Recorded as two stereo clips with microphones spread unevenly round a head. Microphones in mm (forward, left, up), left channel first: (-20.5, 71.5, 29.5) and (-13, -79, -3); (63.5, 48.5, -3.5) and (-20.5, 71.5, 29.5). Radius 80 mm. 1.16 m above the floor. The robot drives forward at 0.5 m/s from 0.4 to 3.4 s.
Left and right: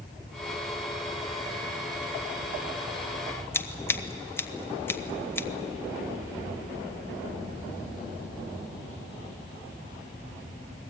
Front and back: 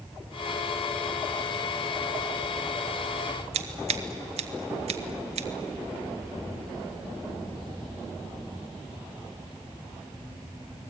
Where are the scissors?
175° left, 1.2 m.